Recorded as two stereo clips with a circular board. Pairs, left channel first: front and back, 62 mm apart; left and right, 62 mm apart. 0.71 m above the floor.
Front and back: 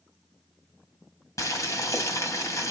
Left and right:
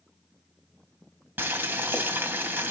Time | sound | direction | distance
1.4 | boiling | 30° right | 1.6 m